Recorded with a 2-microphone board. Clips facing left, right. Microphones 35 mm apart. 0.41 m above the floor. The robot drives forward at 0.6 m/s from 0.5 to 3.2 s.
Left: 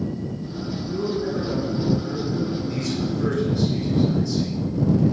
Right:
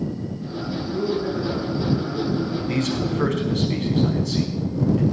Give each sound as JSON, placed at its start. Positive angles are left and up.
{"t": 0.8, "sound": "a man speaking", "side_deg": 0, "distance_m": 5.5}
{"t": 2.7, "sound": "a man speaking", "side_deg": -70, "distance_m": 4.0}